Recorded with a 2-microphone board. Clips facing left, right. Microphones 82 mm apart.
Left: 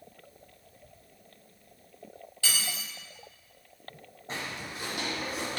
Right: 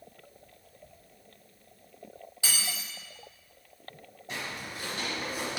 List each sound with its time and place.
2.4 s cutlery clinking: 20° right (ahead or behind), 0.7 m
4.3 s footsteps: 35° left (ahead or behind), 0.9 m; by 5.6 s 10° right (ahead or behind), 0.7 m